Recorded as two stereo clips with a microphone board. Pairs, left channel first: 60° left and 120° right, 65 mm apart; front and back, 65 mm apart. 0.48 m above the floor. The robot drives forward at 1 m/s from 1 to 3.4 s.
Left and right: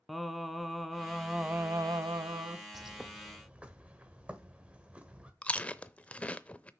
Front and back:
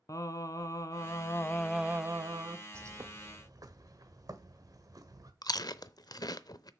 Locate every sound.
0.1 s singing: 30° right, 0.9 m; by 2.6 s 155° right, 1.0 m
2.7 s a bird: 155° left, 0.7 m; by 5.3 s 170° left, 1.2 m
5.4 s chewing: 10° right, 0.6 m